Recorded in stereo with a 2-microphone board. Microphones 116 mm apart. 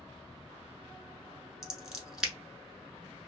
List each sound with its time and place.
1.6 s scissors: 5° right (ahead or behind), 0.8 m